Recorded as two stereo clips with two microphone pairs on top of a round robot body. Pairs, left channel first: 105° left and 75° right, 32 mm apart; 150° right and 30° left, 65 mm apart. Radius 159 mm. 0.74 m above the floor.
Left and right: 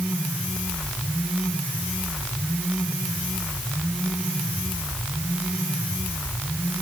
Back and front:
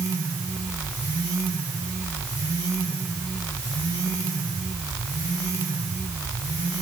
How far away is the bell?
No bell in this recording.